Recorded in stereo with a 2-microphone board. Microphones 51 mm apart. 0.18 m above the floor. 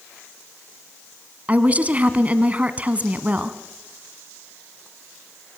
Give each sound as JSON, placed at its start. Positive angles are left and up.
{"t": 1.5, "sound": "a woman speaking", "side_deg": -30, "distance_m": 1.5}